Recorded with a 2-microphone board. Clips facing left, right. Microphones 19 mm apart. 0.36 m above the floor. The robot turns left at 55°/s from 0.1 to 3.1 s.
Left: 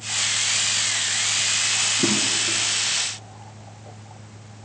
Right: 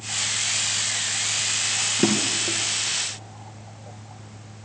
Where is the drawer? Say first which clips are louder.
Left 1 dB; 85° right, 3 m; by 2.6 s 60° right (ahead or behind), 3 m.